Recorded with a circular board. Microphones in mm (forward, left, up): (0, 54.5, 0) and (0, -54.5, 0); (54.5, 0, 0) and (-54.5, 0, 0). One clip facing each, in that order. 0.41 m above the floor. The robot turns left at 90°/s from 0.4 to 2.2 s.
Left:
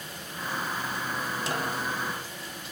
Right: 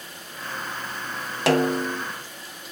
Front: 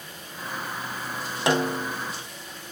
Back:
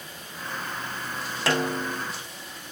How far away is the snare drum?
About 1.3 m.